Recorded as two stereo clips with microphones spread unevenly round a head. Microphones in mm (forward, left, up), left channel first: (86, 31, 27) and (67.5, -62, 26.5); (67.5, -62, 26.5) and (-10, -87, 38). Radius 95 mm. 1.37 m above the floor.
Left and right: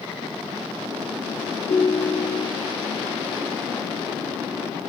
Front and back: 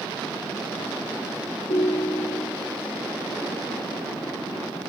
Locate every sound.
1.7 s a ringtone: 50° left, 3.5 m